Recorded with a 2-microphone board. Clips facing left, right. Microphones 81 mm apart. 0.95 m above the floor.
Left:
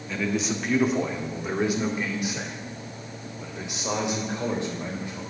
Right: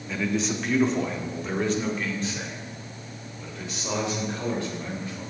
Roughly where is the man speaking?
Centre.